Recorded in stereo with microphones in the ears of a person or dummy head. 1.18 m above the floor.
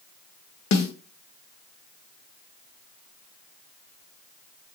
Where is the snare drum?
60° left (ahead or behind), 0.6 m.